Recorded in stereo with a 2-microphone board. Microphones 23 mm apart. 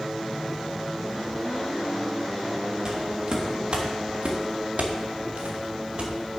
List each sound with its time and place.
2.9 s footsteps: 25° right (ahead or behind), 3 m; by 6.1 s 50° right (ahead or behind), 3 m